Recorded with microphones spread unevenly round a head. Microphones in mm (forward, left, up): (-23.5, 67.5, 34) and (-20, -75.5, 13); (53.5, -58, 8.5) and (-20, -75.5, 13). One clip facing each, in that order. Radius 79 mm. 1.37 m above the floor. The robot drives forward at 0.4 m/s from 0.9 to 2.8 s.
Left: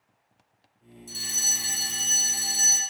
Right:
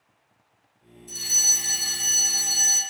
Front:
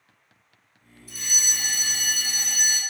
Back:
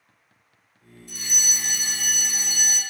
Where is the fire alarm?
100° left, 4 m; by 2.8 s 110° left, 4 m.